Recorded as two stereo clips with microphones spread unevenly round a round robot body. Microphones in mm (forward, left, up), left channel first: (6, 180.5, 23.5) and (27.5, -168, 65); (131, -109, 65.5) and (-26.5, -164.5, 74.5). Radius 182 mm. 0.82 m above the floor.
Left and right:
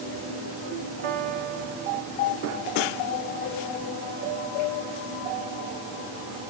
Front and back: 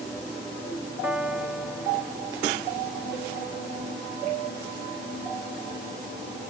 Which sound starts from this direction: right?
A piano, at 1.0 s.